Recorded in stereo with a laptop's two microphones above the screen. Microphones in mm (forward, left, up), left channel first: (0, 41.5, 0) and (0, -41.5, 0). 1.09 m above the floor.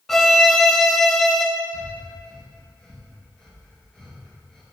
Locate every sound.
0.1 s a violin: 5° left (ahead or behind), 0.9 m
1.7 s breathing: 5° left (ahead or behind), 3 m